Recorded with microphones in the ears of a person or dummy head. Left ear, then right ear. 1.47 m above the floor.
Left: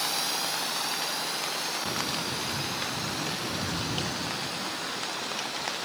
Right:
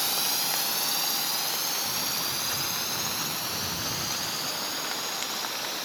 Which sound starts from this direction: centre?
A drone, at 0.0 s.